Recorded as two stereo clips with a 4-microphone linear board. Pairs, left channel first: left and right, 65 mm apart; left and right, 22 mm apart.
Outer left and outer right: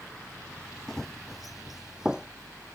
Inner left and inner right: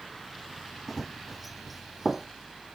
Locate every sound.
0.9 s running footsteps: 5° left (ahead or behind); by 2.3 s 15° right (ahead or behind)